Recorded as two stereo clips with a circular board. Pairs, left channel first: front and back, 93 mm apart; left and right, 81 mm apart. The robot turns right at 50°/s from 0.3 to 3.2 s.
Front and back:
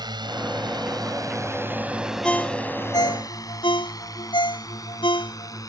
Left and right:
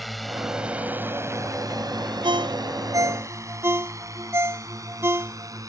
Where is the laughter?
I don't hear laughter.